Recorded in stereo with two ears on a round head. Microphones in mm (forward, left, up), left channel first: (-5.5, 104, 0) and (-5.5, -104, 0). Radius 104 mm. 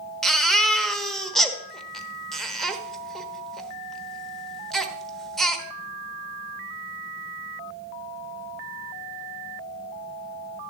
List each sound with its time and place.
0.2 s a baby crying: centre (ahead or behind), 1.1 m